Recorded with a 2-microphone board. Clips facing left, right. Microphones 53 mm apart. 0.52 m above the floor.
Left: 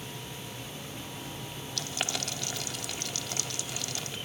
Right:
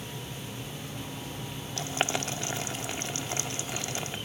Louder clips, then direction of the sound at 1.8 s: Right 5 dB; 30° right (ahead or behind).